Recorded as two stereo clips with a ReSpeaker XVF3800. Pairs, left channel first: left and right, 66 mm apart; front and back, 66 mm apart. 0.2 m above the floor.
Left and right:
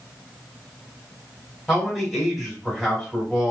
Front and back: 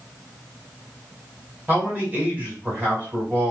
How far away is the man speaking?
About 1.5 m.